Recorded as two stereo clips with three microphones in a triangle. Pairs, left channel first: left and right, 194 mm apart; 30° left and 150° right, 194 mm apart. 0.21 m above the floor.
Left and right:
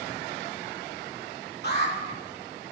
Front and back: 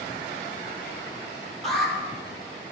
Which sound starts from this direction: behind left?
An alarm, at 1.6 s.